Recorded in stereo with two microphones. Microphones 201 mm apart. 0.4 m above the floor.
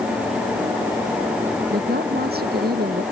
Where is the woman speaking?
55° right (ahead or behind); by 3.0 s 50° right (ahead or behind).